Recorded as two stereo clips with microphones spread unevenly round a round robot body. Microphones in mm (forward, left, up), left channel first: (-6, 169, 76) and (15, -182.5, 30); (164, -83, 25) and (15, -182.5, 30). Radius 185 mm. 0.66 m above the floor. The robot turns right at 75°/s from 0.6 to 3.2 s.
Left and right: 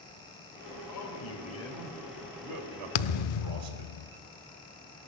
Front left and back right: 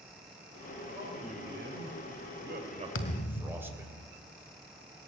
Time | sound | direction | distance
0.9 | a man speaking | 120° left | 3.5 m
3.0 | a thud | 75° left | 0.6 m